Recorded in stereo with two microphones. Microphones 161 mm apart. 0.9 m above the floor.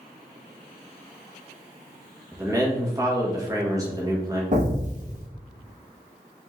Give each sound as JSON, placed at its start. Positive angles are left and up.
{"t": 2.3, "sound": "a man speaking", "side_deg": -20, "distance_m": 1.3}
{"t": 4.5, "sound": "an explosion", "side_deg": -50, "distance_m": 1.1}